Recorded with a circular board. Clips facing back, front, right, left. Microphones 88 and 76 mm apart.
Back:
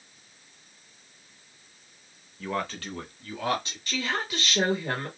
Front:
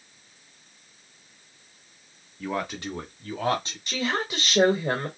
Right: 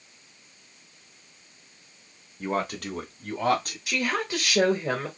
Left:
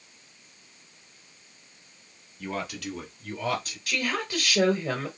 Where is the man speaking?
90° right, 0.9 m; by 3.8 s 55° right, 2.5 m.